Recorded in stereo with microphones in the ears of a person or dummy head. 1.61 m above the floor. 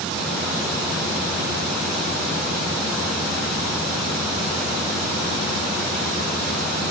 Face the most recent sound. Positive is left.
No sound to turn to.